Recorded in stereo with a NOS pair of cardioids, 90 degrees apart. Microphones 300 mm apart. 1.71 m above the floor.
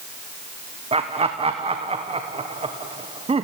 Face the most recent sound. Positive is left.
turn(degrees=-20)